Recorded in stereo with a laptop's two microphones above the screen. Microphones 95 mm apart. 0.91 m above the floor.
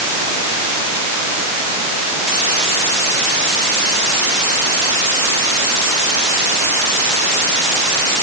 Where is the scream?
I don't hear a scream.